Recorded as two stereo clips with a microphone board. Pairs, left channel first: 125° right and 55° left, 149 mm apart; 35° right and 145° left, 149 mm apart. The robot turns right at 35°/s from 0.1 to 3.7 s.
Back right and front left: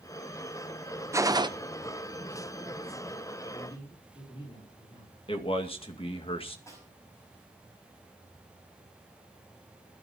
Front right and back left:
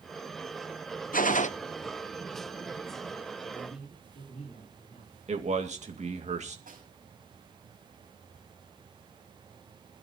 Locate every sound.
1.1 s a gunshot: 15° right, 0.8 m; by 1.5 s straight ahead, 0.8 m
3.5 s a man speaking: 80° right, 4 m; by 5.2 s 75° right, 4 m
5.3 s a man speaking: 175° right, 2 m
6.7 s a snare drum: 165° left, 6 m